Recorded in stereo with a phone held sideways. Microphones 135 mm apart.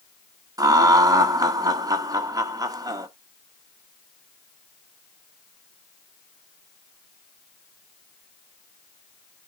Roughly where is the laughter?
Right.